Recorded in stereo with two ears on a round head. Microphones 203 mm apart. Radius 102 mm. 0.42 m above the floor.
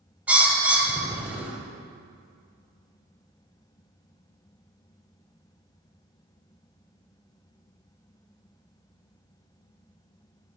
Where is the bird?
5° right (ahead or behind), 0.8 m.